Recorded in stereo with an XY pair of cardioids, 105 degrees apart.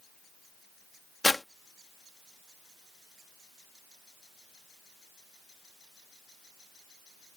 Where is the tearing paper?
15° left.